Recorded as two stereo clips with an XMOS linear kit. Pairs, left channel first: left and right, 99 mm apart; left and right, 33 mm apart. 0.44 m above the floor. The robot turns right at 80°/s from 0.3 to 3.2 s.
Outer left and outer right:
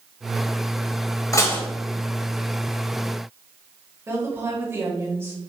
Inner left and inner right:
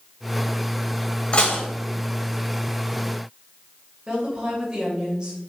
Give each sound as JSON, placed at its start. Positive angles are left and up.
{"t": 1.3, "sound": "dishes clattering", "side_deg": 35, "distance_m": 1.1}
{"t": 4.1, "sound": "a woman speaking", "side_deg": -25, "distance_m": 2.0}